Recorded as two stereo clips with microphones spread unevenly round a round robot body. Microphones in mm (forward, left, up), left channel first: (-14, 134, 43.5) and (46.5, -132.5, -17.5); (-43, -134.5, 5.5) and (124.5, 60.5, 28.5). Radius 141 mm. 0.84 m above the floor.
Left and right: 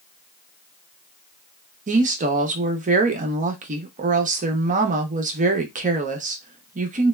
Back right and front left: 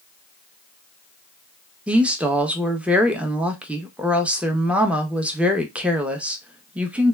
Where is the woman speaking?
40° right, 0.6 m.